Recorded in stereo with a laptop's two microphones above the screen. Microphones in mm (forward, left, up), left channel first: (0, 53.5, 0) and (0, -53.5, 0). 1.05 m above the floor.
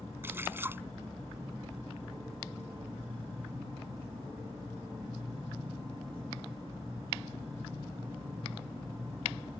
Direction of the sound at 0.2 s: 20° right (ahead or behind).